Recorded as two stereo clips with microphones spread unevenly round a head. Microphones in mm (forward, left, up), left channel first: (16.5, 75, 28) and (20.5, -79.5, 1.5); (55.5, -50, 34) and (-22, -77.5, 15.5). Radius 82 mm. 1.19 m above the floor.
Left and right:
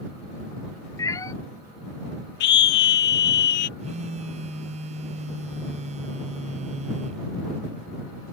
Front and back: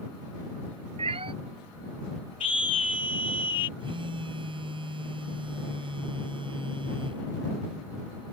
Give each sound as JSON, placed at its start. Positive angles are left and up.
{"t": 1.0, "sound": "a cat meowing", "azimuth_deg": 160}
{"t": 2.4, "sound": "a scream", "azimuth_deg": 75}
{"t": 3.8, "sound": "a phone buzzing", "azimuth_deg": -145}